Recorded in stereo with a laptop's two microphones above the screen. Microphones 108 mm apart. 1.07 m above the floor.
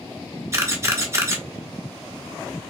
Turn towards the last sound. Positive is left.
turn(degrees=-30)  # may be behind; listen again after turning